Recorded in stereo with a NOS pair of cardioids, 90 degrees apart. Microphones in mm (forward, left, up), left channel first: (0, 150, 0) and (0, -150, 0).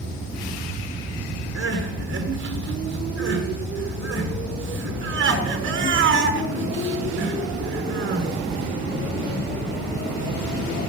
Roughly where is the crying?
Ahead right.